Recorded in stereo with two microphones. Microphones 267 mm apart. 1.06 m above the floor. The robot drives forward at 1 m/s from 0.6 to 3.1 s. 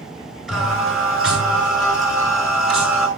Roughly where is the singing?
Centre.